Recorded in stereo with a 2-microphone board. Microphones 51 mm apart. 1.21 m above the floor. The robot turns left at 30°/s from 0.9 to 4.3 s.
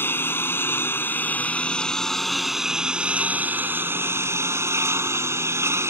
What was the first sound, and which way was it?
A lawn mower, 45° left.